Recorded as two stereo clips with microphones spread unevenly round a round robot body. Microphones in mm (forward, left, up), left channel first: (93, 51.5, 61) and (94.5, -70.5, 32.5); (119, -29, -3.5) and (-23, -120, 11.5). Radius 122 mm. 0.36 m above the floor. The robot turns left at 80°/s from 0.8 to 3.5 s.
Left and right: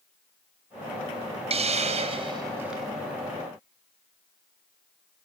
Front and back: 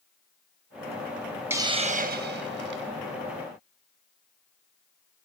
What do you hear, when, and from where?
1.5 s a hiss: 70° right, 0.7 m; by 2.9 s straight behind, 0.7 m